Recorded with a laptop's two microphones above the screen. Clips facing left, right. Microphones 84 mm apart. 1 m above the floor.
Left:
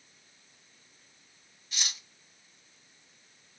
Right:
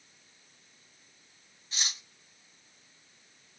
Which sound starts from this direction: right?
Cutlery clinking, at 1.7 s.